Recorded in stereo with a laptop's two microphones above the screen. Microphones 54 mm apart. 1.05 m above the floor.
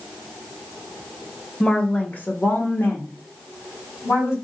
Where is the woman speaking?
20° left (ahead or behind), 1.2 m; by 4.3 s 60° left (ahead or behind), 2.5 m.